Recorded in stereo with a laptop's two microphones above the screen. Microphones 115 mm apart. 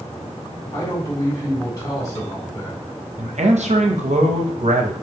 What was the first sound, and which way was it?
A man speaking, 30° left (ahead or behind).